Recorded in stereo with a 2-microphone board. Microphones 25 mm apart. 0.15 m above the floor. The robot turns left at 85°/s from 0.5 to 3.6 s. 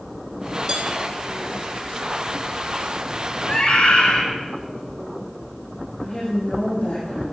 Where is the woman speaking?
70° left (ahead or behind), 6 m.